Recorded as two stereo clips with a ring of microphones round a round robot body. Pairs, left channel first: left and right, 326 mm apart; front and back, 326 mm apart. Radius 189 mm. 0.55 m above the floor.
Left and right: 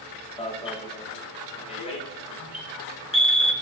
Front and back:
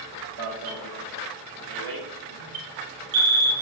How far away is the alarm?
About 2.5 m.